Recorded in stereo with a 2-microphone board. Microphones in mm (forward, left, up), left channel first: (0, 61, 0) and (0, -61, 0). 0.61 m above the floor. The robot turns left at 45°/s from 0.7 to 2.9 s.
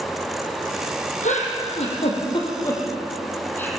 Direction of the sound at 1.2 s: 85° left.